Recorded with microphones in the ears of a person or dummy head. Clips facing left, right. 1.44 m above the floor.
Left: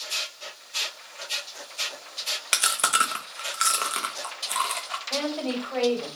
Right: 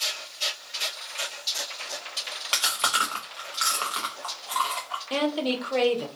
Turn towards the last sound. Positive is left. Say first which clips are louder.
# right 3 dB
turn(degrees=-45)  # may be behind; listen again after turning